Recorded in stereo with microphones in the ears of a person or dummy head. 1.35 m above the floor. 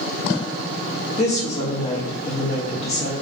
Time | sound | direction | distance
1.2 | a woman speaking | 35° left (ahead or behind) | 1.0 m